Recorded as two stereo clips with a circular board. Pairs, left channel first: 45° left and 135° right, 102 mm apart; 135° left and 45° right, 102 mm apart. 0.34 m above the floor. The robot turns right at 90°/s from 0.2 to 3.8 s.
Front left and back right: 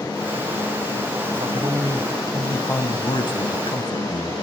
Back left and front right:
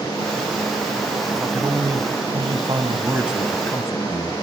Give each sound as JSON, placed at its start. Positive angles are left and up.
{"t": 1.3, "sound": "a man speaking", "azimuth_deg": -145, "distance_m": 2.5}